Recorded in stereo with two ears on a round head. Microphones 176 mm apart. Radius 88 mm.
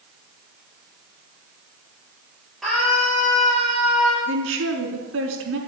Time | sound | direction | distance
2.6 | a scream | centre (ahead or behind) | 7.5 m
4.3 | a woman speaking | 75° right (ahead or behind) | 5 m